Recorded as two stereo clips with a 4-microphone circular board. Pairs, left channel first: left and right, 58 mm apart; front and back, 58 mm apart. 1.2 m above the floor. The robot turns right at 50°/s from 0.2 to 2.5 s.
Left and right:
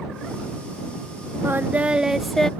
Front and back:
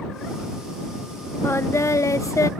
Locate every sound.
1.4 s singing: 40° right; by 2.5 s 10° left